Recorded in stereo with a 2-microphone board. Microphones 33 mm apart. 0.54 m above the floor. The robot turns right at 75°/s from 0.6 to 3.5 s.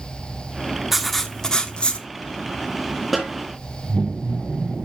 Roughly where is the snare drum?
Centre.